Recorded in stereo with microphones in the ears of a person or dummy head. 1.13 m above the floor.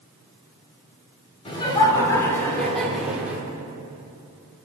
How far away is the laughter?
About 4 m.